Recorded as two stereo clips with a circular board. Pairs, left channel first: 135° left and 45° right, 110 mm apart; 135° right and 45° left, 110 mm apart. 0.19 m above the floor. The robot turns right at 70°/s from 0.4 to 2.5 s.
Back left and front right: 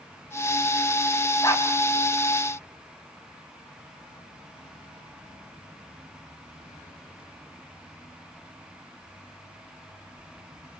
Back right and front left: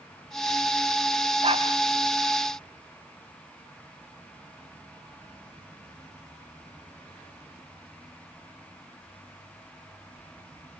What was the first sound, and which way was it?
A dog barking, 70° left.